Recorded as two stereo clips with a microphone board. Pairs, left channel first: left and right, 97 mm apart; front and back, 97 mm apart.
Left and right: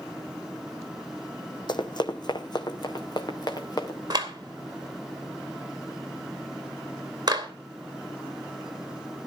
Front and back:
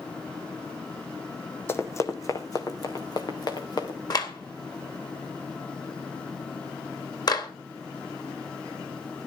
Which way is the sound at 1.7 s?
60° left.